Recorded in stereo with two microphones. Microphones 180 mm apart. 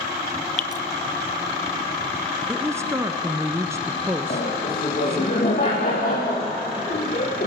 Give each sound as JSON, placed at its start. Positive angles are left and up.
{"t": 0.6, "sound": "dripping", "side_deg": 40, "distance_m": 0.7}
{"t": 2.5, "sound": "a woman speaking", "side_deg": -15, "distance_m": 1.3}
{"t": 4.3, "sound": "laughter", "side_deg": 55, "distance_m": 3.5}